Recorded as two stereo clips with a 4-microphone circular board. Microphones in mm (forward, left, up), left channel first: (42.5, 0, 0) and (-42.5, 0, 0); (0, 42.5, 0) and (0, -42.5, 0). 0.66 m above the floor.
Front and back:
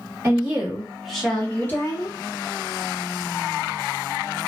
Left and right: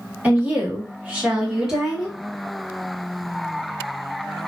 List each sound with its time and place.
0.2 s a woman speaking: 140° right, 1.2 m; by 2.2 s straight ahead, 1.1 m